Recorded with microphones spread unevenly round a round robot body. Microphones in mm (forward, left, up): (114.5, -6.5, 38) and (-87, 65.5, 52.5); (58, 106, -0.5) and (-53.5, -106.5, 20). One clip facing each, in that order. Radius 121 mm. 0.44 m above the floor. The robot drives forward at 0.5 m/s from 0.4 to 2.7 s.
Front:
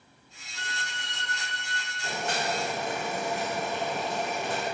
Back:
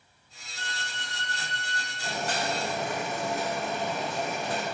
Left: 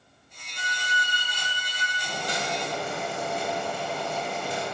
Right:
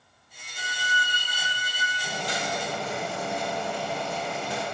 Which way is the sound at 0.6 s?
70° right.